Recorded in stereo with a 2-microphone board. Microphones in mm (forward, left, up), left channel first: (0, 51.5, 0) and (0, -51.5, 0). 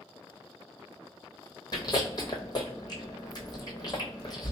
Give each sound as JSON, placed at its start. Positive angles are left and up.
{"t": 1.7, "sound": "chewing", "side_deg": 40, "distance_m": 1.0}